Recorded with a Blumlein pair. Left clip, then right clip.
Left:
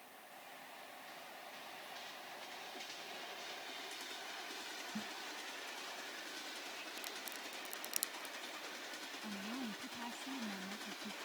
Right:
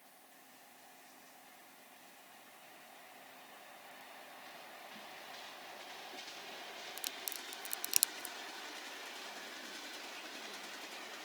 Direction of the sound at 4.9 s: 35° left.